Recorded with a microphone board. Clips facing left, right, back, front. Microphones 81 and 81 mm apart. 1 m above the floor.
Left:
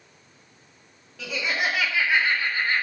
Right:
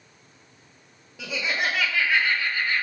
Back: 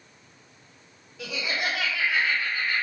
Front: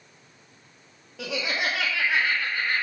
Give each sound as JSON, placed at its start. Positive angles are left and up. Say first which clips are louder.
{"t": 1.2, "sound": "laughter", "louder": "even, front 2 dB", "azimuth_deg": -15, "distance_m": 1.7}